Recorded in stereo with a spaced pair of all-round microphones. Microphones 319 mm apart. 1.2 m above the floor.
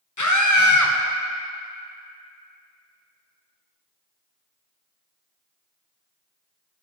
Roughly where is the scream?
Left.